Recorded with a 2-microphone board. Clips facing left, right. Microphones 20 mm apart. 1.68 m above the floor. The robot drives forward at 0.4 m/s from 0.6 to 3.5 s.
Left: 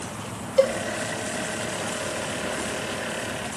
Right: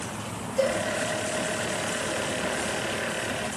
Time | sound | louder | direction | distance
0.6 | a cowbell | left 5 dB | 90° left | 0.8 m